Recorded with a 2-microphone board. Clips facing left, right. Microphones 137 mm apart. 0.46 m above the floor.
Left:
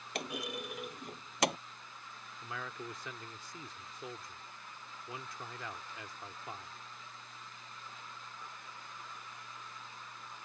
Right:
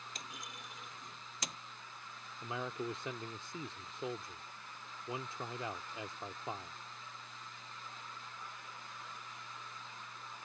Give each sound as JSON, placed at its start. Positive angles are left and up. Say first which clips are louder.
{"t": 0.1, "sound": "a clunk", "louder": "left 16 dB", "side_deg": 70}
{"t": 2.4, "sound": "a man speaking", "louder": "right 4 dB", "side_deg": -25}